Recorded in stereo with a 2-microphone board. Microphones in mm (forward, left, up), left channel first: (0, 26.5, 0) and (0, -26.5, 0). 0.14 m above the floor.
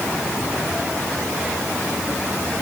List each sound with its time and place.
Only background noise.